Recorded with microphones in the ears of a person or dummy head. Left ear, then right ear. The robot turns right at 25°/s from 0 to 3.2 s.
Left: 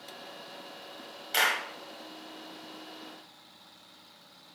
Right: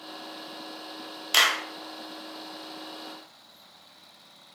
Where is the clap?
35° right (ahead or behind), 1.0 m; by 1.6 s 25° right (ahead or behind), 1.0 m.